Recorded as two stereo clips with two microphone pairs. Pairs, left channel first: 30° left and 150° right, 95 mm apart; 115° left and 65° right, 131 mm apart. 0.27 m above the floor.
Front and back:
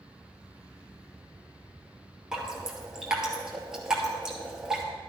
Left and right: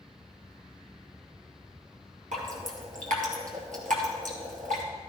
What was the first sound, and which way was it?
Dripping, 65° right.